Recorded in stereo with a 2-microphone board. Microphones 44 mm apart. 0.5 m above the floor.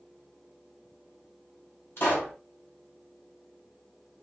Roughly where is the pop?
Left.